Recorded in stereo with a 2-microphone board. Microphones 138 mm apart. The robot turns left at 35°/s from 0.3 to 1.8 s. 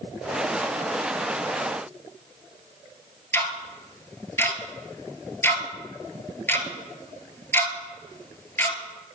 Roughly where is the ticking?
Centre.